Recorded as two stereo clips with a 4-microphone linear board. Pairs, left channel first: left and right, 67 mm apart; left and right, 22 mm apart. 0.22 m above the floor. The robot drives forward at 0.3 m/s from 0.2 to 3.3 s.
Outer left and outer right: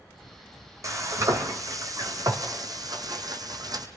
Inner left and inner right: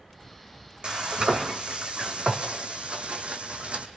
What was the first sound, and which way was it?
Frying, 50° right (ahead or behind).